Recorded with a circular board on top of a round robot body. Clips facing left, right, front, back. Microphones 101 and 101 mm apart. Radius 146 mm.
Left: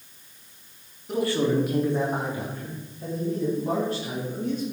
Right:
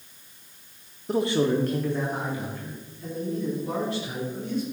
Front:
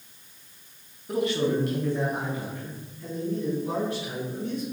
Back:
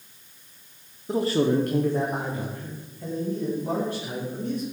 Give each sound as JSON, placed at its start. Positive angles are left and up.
{"t": 1.1, "sound": "a man speaking", "azimuth_deg": -125, "distance_m": 0.9}